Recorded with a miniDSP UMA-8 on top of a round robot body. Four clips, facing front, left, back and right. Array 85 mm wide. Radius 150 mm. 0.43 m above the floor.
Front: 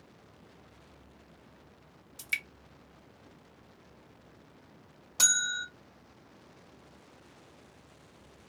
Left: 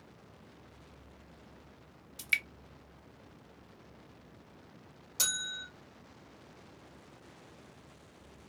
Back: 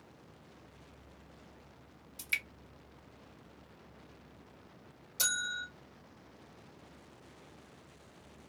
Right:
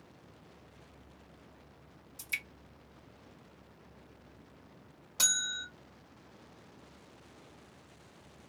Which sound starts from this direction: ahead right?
A bell, at 5.2 s.